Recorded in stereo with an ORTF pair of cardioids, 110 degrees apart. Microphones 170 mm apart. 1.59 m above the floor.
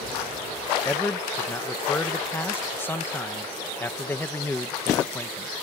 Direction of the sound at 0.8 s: 10° left.